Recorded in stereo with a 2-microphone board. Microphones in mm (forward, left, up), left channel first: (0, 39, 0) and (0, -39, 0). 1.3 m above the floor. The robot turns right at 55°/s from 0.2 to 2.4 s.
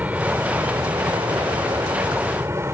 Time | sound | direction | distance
0.0 | an aircraft | 160° right | ?